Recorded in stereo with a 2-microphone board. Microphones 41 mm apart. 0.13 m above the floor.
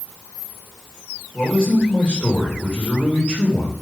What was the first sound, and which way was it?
A man speaking, 20° left (ahead or behind).